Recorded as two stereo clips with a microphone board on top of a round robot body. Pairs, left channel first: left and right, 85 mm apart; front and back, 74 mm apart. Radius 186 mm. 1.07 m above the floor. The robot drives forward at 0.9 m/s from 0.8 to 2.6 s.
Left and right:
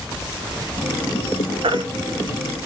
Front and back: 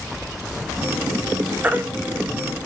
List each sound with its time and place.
1.6 s a baby crying: 110° right, 0.9 m; by 1.8 s 120° right, 1.0 m